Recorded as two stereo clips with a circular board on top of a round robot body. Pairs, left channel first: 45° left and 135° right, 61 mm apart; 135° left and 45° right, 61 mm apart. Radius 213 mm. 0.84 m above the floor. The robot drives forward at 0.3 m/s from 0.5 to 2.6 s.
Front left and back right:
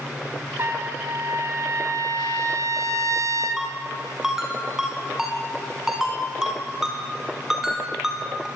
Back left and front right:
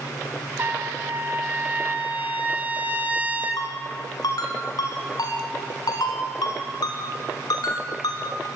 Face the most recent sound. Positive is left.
turn(degrees=140)